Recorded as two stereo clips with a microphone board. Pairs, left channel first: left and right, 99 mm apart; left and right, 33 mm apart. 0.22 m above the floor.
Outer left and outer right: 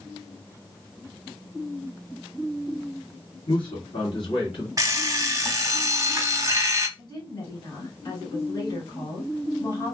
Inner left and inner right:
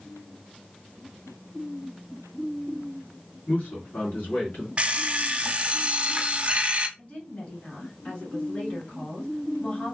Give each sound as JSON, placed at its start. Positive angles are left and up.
{"t": 3.5, "sound": "a man speaking", "side_deg": 60, "distance_m": 2.5}
{"t": 4.8, "sound": "an alarm clock", "side_deg": -35, "distance_m": 0.6}
{"t": 7.0, "sound": "a woman speaking", "side_deg": 50, "distance_m": 2.5}